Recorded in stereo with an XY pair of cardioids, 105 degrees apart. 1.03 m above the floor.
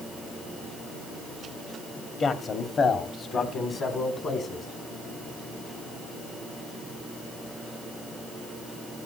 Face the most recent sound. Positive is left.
turn(degrees=50)